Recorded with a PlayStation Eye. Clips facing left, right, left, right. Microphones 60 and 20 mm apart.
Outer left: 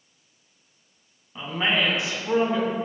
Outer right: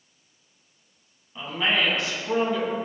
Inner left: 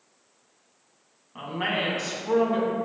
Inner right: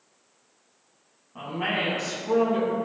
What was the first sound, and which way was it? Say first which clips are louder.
A woman speaking: even, even; 20° left (ahead or behind).